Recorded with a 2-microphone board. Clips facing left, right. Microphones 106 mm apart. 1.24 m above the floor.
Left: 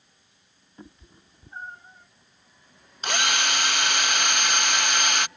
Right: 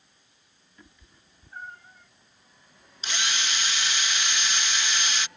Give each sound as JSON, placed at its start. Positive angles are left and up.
{"t": 0.8, "sound": "a cat meowing", "side_deg": 40}
{"t": 3.0, "sound": "a drill", "side_deg": 60}